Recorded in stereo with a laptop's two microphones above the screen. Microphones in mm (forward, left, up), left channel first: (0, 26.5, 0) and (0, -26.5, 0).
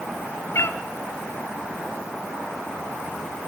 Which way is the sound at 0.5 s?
60° left (ahead or behind).